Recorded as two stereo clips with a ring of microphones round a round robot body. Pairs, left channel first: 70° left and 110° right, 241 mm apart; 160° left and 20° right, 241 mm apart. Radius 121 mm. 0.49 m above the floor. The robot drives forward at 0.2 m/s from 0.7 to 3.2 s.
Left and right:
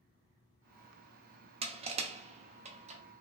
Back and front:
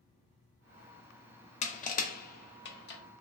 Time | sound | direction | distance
1.6 | crushing | 160° right | 0.5 m